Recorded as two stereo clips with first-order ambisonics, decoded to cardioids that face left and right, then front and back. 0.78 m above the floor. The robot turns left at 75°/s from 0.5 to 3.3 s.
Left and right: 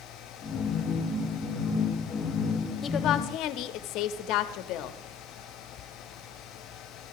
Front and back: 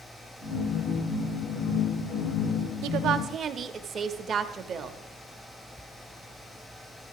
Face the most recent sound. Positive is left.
turn(degrees=120)